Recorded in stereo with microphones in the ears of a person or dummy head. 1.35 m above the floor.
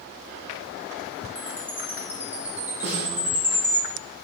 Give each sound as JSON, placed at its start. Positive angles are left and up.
{"t": 1.4, "sound": "a chime", "side_deg": -5, "distance_m": 0.6}
{"t": 2.8, "sound": "a snare drum", "side_deg": -40, "distance_m": 1.0}